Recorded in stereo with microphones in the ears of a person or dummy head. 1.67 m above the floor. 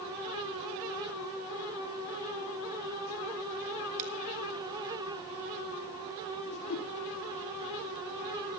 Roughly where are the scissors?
Right.